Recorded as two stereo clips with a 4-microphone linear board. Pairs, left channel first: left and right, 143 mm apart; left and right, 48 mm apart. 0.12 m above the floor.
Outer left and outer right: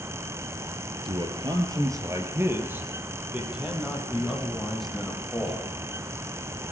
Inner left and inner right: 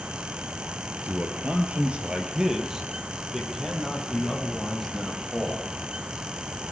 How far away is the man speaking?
About 2 m.